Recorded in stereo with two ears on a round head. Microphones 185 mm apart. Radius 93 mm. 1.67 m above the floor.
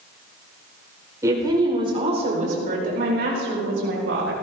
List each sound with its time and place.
1.2 s a woman speaking: 15° right (ahead or behind), 4.5 m; by 4.3 s 70° right (ahead or behind), 5.5 m